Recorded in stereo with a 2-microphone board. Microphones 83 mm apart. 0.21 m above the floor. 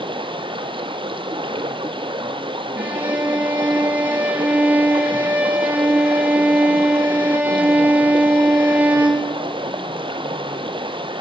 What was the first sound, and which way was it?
Running water, 85° right.